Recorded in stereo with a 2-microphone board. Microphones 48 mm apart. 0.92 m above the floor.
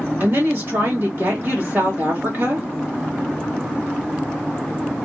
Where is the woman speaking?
50° right (ahead or behind), 1.6 m.